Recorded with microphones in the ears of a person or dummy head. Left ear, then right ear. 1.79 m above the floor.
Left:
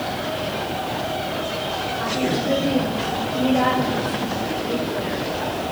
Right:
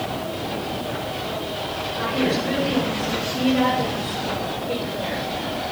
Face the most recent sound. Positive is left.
turn(degrees=-50)  # may be behind; listen again after turning